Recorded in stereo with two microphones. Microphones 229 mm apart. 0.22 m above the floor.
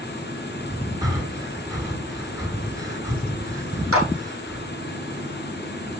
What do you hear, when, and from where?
1.0 s breathing: 15° right (ahead or behind), 3 m
3.9 s a clap: 80° right, 7 m